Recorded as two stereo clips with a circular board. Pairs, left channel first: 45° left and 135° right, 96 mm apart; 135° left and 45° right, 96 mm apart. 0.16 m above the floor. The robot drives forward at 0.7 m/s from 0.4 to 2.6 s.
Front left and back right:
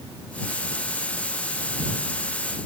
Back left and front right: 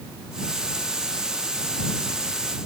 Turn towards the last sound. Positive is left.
No sound to turn to.